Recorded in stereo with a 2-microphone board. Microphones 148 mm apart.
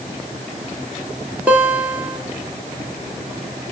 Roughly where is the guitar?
Centre.